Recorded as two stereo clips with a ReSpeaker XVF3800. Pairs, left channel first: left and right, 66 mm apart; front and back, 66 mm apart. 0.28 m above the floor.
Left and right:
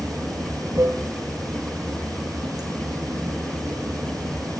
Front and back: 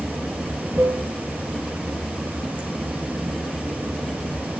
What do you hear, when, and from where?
0.0 s running water: 115° right, 2 m